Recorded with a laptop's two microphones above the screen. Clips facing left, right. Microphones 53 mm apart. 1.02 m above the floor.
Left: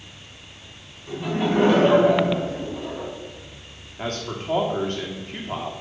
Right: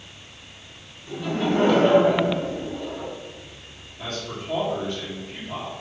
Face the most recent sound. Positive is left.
turn(degrees=55)  # may be behind; listen again after turning